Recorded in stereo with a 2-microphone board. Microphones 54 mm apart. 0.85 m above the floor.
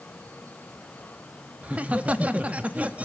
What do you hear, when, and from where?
1.6 s laughter: 30° right (ahead or behind), 1.4 m